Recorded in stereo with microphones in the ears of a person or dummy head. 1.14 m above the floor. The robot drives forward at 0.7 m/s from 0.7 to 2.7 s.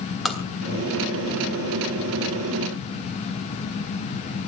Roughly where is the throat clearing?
I don't hear throat clearing.